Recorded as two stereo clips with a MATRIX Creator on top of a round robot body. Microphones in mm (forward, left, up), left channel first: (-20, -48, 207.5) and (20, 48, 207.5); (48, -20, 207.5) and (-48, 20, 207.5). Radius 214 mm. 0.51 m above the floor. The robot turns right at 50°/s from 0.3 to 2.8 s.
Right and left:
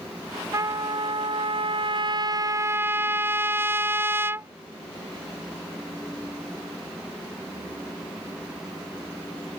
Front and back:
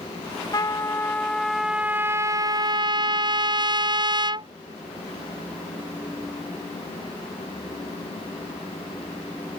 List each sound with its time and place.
0.5 s a trumpet: 20° left; by 4.5 s 130° left